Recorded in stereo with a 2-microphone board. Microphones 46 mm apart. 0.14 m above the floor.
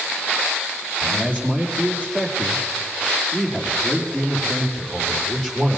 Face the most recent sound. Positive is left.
turn(degrees=10)  # may be behind; listen again after turning